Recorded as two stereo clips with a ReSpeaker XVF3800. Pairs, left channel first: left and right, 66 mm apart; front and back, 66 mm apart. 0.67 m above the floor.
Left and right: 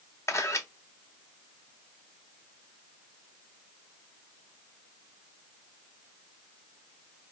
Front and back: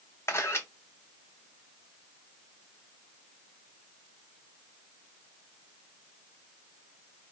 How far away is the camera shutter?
About 1.0 m.